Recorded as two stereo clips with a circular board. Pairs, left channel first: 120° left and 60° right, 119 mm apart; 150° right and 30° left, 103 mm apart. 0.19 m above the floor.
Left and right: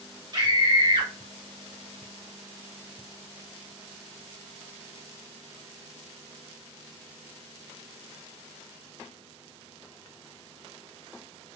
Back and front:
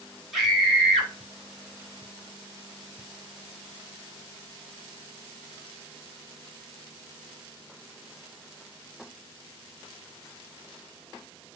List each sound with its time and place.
0.3 s a scream: 55° right, 1.5 m